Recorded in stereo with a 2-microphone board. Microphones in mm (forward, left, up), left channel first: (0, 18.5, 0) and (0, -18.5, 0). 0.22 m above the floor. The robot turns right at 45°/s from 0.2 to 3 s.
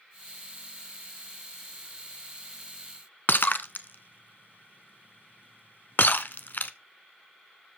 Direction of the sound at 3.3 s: 60° left (ahead or behind).